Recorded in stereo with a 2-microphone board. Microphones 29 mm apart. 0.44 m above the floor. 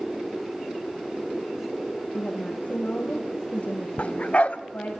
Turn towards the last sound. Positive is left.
turn(degrees=45)  # may be behind; listen again after turning